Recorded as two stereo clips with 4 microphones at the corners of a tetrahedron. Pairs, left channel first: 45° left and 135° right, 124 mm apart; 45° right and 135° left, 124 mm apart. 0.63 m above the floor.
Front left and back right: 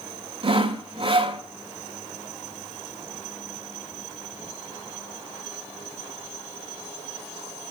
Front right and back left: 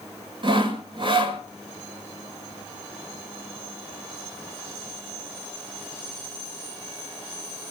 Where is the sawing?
Straight behind, 1.3 m.